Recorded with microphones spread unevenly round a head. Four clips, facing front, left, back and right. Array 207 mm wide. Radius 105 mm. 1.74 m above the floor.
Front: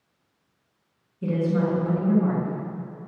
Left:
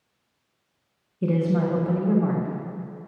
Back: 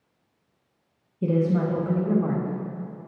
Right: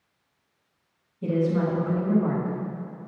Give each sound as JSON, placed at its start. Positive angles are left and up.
{"t": 1.2, "sound": "a woman speaking", "azimuth_deg": 130, "distance_m": 2.5}